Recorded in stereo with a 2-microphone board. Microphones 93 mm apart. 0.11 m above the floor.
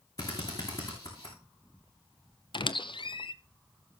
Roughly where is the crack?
No crack in this recording.